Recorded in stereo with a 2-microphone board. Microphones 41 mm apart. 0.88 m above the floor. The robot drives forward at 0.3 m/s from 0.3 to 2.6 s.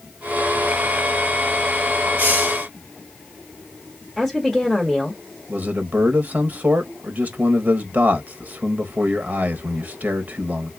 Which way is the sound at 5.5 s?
45° right (ahead or behind).